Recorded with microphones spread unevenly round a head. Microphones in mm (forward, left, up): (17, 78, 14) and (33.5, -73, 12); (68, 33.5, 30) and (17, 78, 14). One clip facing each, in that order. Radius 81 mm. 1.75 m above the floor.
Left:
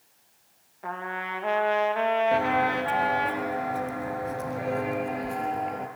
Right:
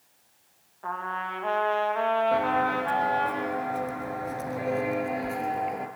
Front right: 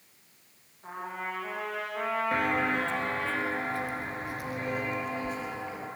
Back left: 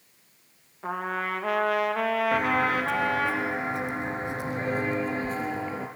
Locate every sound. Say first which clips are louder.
0.8 s a trumpet: right 1 dB, back left 7 dB; 170° left, 2.5 m
2.3 s footsteps: left 1 dB, back left 3 dB; 25° left, 1.8 m; by 5.9 s 165° right, 2 m